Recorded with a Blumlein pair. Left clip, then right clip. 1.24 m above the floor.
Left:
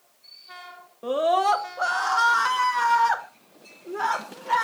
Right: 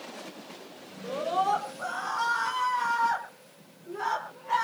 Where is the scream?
45° left, 3 m; by 4.6 s 20° left, 5 m.